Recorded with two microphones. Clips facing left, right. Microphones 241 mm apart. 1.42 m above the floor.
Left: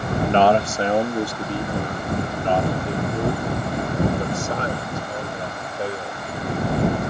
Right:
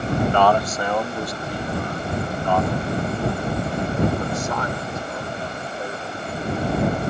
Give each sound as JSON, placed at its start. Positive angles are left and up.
{"t": 0.2, "sound": "a man speaking", "side_deg": 25}